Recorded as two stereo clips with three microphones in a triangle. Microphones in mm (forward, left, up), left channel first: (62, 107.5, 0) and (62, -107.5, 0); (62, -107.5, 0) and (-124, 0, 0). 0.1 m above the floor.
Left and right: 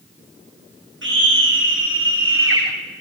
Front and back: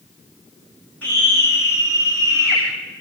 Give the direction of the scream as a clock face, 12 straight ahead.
4 o'clock.